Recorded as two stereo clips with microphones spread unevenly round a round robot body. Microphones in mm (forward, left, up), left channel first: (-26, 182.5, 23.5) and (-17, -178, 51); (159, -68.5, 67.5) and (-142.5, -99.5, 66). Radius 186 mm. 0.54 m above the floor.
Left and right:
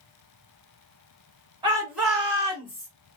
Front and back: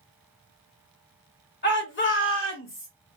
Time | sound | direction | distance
1.6 | a shout | 15° right | 1.5 m